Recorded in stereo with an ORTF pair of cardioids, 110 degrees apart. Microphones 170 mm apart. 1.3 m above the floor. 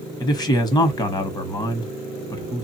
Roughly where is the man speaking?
Ahead left.